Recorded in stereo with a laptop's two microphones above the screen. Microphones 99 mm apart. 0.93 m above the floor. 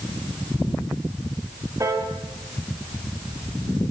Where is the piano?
30° right (ahead or behind), 1.2 m.